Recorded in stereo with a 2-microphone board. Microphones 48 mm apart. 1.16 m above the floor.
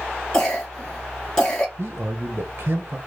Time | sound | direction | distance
0.3 | a cough | 15° left (ahead or behind) | 1.2 m
1.8 | a man speaking | 40° right (ahead or behind) | 0.9 m